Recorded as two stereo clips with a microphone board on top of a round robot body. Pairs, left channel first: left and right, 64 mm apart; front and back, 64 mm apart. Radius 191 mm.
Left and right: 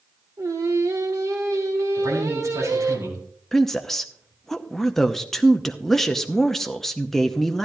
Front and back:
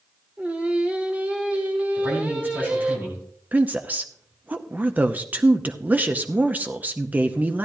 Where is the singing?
110° right, 1.9 m.